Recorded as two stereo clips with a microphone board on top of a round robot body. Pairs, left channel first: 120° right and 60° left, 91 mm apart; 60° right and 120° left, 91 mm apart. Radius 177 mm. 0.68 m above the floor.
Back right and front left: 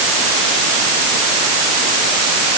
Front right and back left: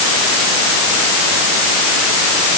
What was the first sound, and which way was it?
Only background noise.